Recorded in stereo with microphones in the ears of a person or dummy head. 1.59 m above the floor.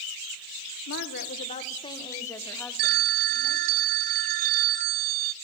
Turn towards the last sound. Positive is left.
turn(degrees=-40)  # may be behind; listen again after turning